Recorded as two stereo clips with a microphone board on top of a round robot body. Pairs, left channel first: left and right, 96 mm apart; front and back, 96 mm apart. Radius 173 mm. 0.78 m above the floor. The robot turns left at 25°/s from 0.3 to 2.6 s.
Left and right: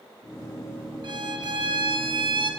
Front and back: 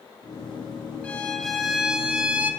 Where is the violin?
75° right, 0.9 m; by 2.5 s 110° right, 0.9 m.